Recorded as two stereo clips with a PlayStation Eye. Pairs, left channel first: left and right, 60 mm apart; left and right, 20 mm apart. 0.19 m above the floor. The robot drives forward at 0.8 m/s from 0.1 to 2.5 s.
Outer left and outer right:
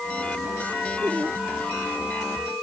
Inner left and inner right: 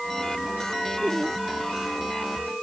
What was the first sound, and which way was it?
Laughter, 40° right (ahead or behind).